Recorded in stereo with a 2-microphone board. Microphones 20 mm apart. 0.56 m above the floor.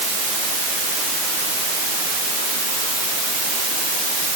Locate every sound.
Only background noise.